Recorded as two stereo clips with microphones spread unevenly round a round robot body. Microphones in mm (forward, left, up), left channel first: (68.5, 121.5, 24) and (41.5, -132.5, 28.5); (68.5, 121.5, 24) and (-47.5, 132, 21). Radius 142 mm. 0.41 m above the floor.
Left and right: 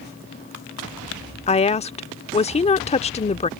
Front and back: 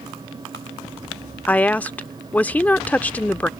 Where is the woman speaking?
60° left.